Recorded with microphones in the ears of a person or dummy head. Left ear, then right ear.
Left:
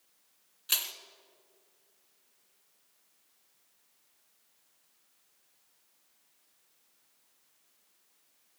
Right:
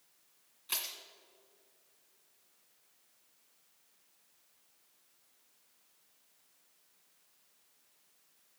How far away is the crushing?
About 1.9 m.